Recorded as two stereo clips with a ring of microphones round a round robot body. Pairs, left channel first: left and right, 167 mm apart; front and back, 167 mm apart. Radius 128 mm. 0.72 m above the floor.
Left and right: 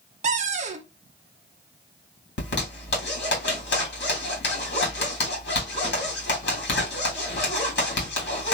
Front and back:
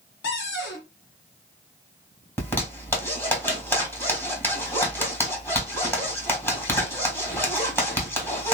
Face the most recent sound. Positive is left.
turn(degrees=80)